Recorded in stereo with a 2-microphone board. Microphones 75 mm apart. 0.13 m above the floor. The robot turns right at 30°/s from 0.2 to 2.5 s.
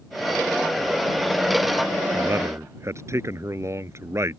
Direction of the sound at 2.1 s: 35° right (ahead or behind).